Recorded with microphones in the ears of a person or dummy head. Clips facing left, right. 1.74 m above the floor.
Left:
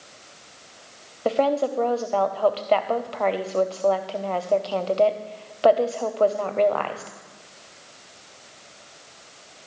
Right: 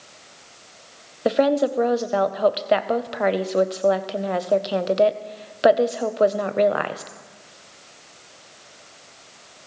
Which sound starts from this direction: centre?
A woman speaking, at 1.2 s.